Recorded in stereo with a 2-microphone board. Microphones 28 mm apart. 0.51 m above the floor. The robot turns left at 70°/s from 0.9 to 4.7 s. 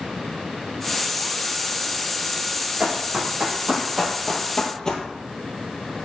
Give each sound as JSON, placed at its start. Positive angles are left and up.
{"t": 2.8, "sound": "running footsteps", "side_deg": -65, "distance_m": 1.2}